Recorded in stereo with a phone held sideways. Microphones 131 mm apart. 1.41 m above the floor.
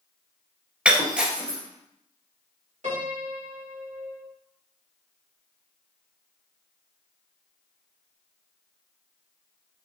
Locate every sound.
0.8 s breaking glass: 10° right (ahead or behind), 1.6 m
2.8 s a piano: 60° right (ahead or behind), 1.8 m